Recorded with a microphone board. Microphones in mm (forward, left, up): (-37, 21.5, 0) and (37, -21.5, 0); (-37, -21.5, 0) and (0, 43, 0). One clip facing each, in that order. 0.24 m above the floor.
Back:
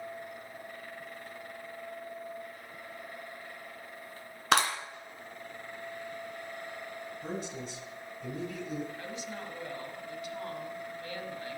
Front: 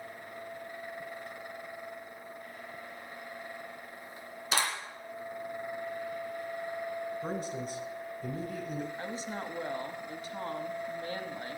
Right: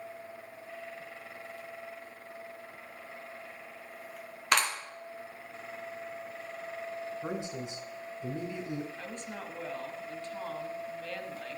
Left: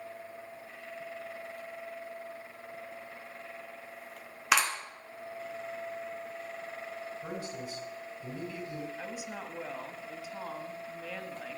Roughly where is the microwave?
No microwave in this recording.